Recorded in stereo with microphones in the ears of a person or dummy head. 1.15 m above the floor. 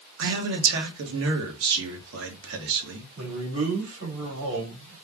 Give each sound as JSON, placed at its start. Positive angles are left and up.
{"t": 0.2, "sound": "a man speaking", "side_deg": -65, "distance_m": 1.3}
{"t": 3.2, "sound": "a man speaking", "side_deg": -80, "distance_m": 1.9}